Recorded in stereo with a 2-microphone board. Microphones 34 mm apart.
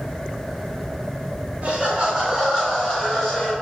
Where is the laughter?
40° right (ahead or behind), 1.2 m; by 3.5 s centre (ahead or behind), 2.5 m.